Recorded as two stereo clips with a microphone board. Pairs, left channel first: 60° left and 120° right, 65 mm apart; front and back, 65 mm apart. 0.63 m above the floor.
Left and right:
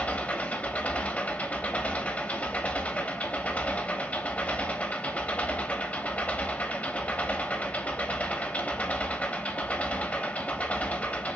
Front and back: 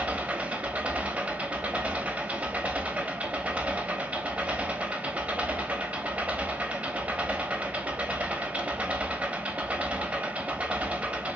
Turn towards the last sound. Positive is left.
turn(degrees=120)